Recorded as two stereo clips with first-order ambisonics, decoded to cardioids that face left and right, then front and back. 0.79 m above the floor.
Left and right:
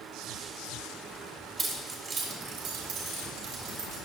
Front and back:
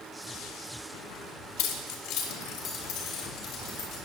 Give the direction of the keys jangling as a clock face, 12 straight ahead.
1 o'clock.